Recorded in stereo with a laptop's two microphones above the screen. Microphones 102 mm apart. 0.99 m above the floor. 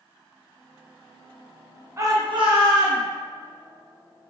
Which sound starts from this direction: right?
A shout, at 2.0 s.